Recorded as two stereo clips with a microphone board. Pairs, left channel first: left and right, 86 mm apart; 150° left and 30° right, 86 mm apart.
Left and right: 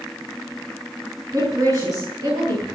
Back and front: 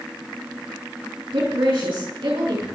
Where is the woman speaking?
45° right, 5.5 m.